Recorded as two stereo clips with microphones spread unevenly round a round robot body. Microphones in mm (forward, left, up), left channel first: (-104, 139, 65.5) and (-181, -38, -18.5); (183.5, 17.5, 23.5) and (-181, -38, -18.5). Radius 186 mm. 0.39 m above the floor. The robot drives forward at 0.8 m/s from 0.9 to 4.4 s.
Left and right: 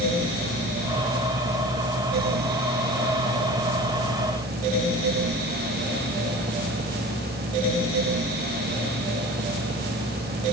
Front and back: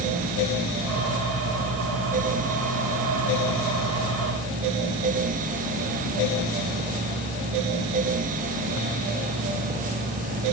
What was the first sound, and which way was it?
Only background noise.